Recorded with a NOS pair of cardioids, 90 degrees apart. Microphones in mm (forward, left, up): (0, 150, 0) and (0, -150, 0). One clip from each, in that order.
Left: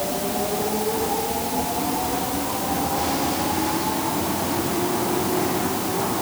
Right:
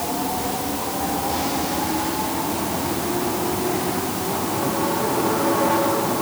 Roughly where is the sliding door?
No sliding door in this recording.